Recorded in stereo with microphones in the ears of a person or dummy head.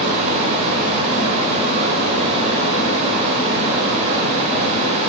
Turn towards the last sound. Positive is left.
turn(degrees=-30)  # may be behind; listen again after turning